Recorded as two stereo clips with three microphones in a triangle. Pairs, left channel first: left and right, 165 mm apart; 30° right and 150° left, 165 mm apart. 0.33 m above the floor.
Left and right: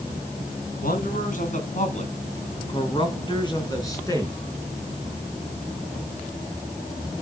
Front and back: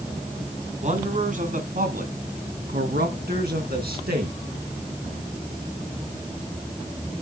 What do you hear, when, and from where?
0.8 s a man speaking: 110° left, 4 m; by 4.4 s 160° left, 4.5 m